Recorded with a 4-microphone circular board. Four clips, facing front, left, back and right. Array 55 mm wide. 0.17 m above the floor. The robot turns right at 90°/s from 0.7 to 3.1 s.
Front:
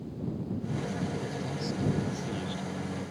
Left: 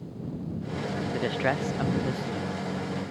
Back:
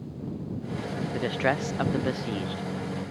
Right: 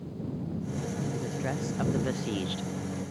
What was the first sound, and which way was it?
A man speaking, 120° left.